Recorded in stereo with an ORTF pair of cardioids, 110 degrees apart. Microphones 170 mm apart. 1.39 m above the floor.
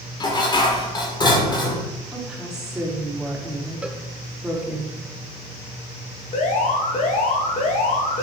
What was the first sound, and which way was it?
Dishes clattering, 25° left.